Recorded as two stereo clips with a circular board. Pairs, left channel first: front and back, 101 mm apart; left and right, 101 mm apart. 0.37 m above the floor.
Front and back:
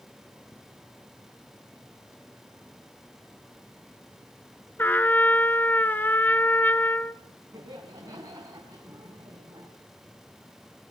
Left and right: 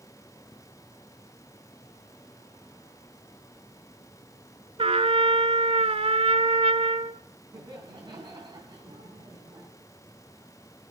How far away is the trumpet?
About 0.8 m.